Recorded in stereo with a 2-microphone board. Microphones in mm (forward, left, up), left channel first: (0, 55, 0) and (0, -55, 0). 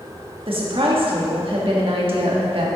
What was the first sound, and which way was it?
A woman speaking, 55° right (ahead or behind).